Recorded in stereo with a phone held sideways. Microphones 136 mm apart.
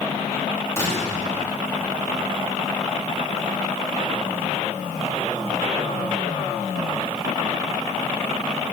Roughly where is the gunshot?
Left.